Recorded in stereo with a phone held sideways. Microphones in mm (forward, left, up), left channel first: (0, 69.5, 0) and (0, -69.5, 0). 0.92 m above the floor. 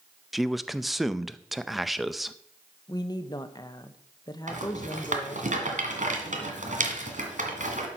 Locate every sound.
0.3 s a man speaking: centre (ahead or behind), 0.5 m
2.9 s a woman speaking: 30° left (ahead or behind), 0.8 m
4.5 s a rattle: 65° right (ahead or behind), 2.0 m